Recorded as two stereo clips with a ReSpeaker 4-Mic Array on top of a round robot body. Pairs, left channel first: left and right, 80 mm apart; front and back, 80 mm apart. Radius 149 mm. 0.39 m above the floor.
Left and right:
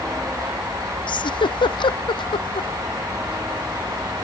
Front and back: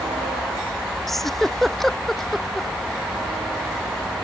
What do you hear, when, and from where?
1.1 s a giggle: 85° left